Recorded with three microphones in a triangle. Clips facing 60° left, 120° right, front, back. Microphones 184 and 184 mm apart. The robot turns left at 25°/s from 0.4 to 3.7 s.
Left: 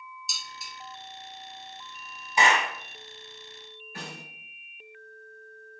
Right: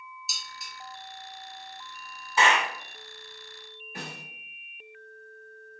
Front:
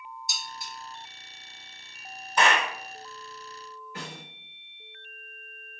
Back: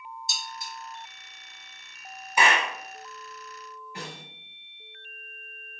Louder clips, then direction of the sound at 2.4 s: Even, even; 110° left.